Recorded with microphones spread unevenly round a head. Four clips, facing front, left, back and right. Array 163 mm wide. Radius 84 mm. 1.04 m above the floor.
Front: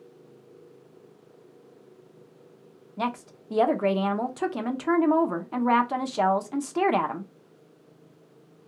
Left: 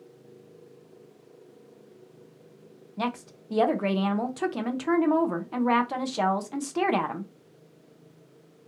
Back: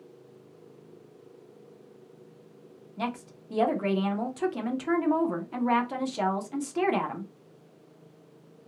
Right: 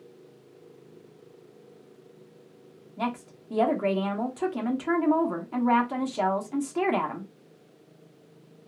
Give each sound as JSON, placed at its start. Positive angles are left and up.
{"t": 3.0, "sound": "a woman speaking", "azimuth_deg": 5, "distance_m": 0.9}